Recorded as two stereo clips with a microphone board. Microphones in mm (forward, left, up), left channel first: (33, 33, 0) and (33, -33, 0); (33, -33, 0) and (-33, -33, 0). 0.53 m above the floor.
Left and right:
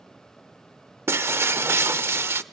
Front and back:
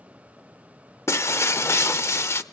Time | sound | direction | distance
1.1 | breaking glass | 45° right | 0.6 m